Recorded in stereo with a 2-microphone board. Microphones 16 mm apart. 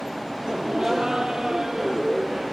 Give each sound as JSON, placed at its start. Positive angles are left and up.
{"t": 0.5, "sound": "laughter", "side_deg": -60, "distance_m": 2.0}